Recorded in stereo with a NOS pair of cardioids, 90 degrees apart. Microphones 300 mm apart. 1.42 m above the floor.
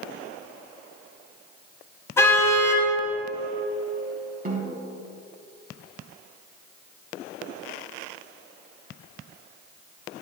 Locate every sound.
2.2 s a car horn: 10° left, 5.5 m
4.5 s a snare drum: 30° right, 5.5 m